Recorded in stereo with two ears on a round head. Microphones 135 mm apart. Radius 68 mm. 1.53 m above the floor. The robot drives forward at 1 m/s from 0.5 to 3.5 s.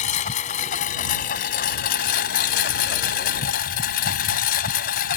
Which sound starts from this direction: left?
A lawn mower, at 0.0 s.